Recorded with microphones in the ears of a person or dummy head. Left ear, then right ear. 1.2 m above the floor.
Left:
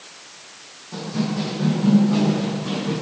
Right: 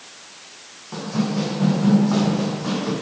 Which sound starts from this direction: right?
Running footsteps, at 0.9 s.